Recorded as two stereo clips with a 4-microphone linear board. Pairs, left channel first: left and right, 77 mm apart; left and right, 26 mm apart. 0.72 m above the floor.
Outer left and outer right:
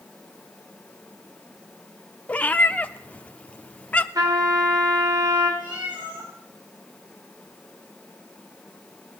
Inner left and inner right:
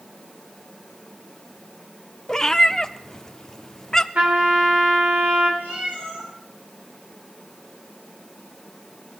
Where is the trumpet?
60° right (ahead or behind), 3 m.